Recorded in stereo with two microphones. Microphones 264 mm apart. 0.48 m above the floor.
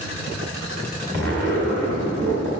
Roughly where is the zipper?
Right.